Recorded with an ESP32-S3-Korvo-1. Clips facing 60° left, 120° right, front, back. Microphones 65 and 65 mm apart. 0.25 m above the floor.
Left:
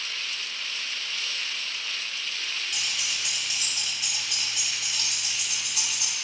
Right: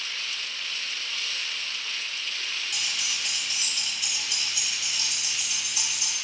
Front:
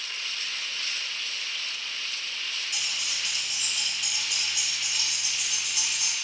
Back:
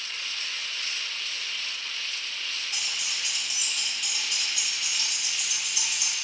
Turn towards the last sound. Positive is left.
turn(degrees=50)